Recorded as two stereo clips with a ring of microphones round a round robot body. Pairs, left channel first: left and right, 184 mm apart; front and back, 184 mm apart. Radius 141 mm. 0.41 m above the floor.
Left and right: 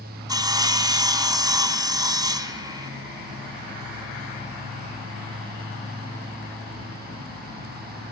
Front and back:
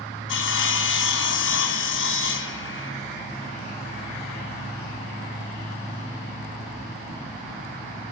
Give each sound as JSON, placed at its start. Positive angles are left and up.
{"t": 0.3, "sound": "sawing", "azimuth_deg": -20, "distance_m": 1.8}